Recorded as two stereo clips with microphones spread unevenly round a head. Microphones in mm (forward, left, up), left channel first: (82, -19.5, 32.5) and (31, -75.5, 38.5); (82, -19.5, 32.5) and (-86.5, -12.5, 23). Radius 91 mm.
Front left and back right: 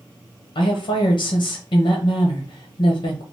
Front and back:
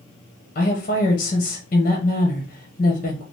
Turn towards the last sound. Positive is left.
turn(degrees=45)